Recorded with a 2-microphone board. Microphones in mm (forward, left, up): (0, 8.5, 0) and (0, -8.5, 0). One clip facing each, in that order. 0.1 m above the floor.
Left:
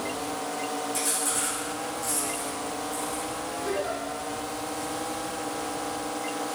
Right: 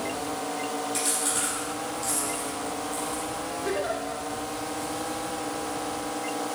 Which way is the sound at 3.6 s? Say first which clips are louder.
Right 1 dB; 20° right (ahead or behind).